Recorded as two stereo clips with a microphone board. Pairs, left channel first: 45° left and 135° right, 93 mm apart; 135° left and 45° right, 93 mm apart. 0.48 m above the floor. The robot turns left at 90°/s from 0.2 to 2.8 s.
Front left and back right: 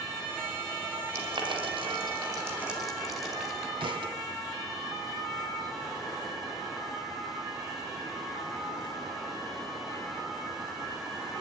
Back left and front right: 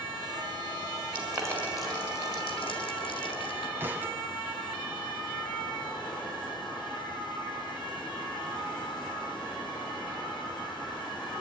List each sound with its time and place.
1.1 s boiling: 75° right, 4 m; by 3.7 s 135° left, 4 m
3.8 s a thud: 110° right, 1.8 m